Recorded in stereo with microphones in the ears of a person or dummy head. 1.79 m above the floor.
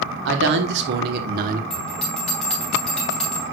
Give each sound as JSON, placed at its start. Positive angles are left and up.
{"t": 0.2, "sound": "a man speaking", "side_deg": -70, "distance_m": 1.8}
{"t": 1.7, "sound": "a bell", "side_deg": 0, "distance_m": 2.5}